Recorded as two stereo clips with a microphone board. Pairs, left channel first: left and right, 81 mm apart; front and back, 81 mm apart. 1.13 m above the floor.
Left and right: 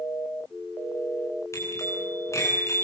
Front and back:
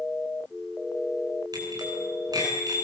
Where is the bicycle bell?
140° left, 9.5 m.